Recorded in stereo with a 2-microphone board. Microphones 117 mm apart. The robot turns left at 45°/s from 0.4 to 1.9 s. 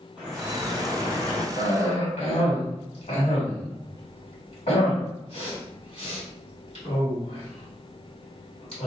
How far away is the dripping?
About 1.9 m.